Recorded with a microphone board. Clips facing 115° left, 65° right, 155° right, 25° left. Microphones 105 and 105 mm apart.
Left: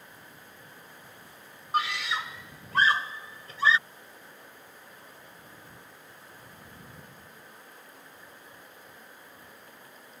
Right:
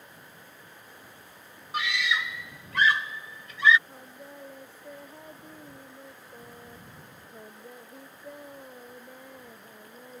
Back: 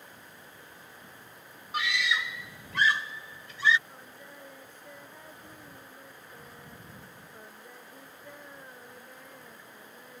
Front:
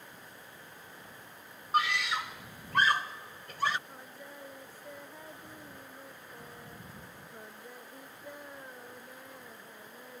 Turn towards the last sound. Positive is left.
turn(degrees=-55)